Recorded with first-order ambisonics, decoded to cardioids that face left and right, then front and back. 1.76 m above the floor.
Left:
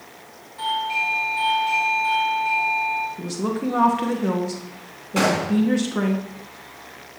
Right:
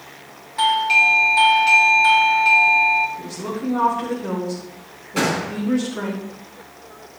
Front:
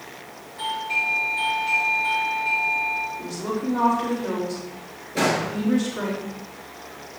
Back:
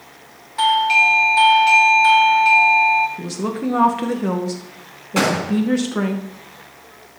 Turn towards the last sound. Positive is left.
turn(degrees=170)